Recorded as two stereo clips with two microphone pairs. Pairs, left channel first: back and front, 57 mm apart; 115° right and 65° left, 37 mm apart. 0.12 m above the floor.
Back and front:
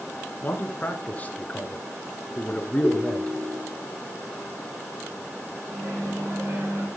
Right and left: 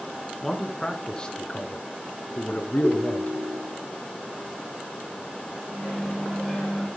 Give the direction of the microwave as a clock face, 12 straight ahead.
1 o'clock.